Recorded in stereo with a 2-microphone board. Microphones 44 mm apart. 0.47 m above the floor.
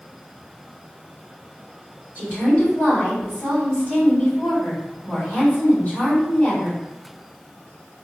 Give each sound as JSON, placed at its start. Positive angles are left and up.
{"t": 2.1, "sound": "a woman speaking", "side_deg": 35, "distance_m": 1.8}